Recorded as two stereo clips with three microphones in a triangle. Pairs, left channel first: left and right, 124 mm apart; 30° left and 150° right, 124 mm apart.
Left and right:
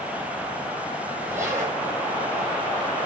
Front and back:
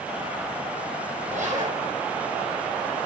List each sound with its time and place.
1.3 s a zipper: 160° right, 8 m